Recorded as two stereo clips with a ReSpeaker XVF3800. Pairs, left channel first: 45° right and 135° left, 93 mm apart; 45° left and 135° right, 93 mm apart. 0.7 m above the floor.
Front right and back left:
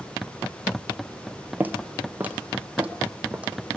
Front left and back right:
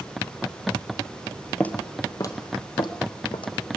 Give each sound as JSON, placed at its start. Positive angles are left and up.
{"t": 1.6, "sound": "footsteps", "azimuth_deg": 100, "distance_m": 0.7}